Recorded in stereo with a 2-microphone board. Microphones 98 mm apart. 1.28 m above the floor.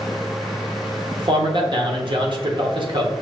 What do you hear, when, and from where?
1.2 s a man speaking: 50° right (ahead or behind), 0.8 m